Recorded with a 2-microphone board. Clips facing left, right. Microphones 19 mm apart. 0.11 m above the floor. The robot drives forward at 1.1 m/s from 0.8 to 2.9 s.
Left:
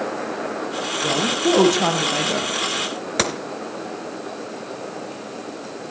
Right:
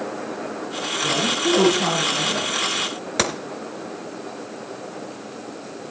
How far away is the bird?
I don't hear a bird.